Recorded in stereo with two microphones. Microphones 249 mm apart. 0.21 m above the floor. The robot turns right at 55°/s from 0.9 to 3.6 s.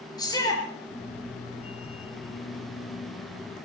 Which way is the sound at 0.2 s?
15° left (ahead or behind).